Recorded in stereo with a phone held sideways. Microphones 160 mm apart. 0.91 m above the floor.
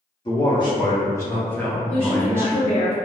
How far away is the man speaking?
About 1.5 m.